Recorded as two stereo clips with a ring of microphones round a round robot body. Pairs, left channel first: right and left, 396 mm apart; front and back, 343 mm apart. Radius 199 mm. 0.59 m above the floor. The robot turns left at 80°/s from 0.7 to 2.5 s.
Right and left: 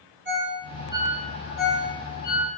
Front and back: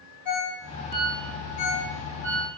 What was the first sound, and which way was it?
A ringtone, 25° left.